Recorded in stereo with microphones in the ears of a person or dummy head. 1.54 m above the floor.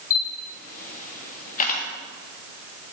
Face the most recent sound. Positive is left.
turn(degrees=45)  # may be behind; listen again after turning